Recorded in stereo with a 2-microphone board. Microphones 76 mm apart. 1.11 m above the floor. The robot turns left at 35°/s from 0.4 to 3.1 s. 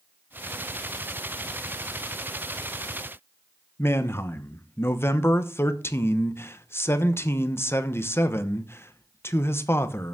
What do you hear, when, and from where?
3.8 s a man speaking: 35° left (ahead or behind), 0.9 m